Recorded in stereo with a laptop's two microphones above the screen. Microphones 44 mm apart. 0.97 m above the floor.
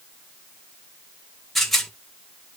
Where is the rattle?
5° left (ahead or behind), 0.9 m.